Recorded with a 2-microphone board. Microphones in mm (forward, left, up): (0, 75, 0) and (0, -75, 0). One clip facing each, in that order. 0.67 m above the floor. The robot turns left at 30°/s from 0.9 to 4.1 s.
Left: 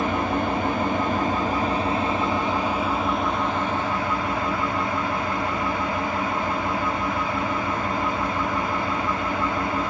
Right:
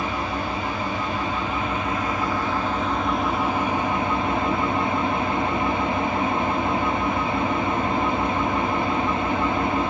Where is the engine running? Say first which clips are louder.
Left 4 dB; 70° left, 0.8 m; by 9.9 s 30° right, 0.8 m.